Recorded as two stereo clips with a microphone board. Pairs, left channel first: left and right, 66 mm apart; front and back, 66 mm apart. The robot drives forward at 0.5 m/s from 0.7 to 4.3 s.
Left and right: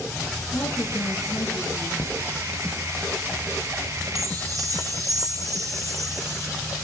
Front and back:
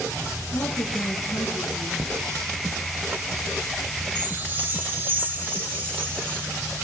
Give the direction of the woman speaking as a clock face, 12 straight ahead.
11 o'clock.